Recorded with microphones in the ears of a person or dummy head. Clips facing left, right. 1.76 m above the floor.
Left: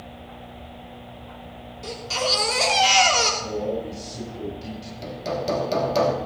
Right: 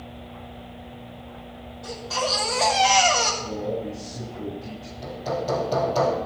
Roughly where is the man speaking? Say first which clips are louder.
Left 2 dB; left.